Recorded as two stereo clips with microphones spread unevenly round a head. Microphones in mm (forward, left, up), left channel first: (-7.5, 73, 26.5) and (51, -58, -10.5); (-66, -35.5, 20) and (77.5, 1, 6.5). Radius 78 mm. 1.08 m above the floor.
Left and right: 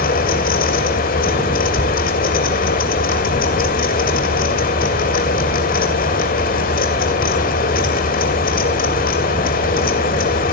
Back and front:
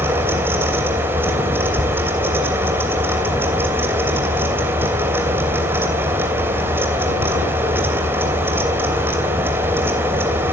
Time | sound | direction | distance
0.0 | a fan | 95° left | 3 m